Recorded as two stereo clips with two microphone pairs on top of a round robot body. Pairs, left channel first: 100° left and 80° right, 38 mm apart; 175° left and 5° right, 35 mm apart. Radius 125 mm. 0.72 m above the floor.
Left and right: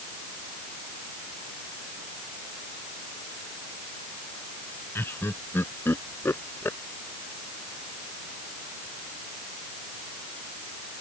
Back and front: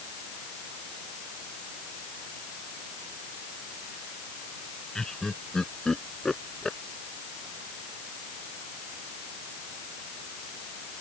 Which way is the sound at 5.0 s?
105° left.